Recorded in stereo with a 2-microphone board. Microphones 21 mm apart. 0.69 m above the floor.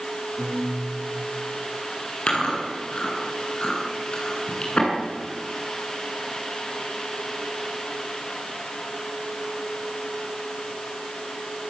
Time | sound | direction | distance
0.4 | a guitar | 10° right (ahead or behind) | 7 m
2.3 | chewing | 45° left (ahead or behind) | 9 m